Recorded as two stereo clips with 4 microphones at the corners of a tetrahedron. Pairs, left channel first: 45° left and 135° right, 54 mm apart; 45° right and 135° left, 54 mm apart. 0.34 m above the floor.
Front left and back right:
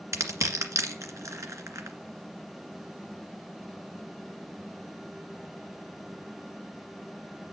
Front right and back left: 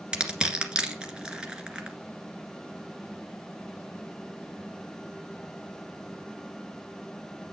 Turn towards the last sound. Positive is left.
turn(degrees=-155)